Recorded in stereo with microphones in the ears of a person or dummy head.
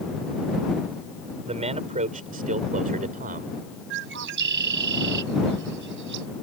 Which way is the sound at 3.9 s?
60° right (ahead or behind).